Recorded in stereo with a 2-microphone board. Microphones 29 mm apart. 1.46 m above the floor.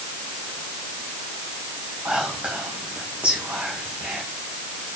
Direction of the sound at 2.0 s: 60° right (ahead or behind).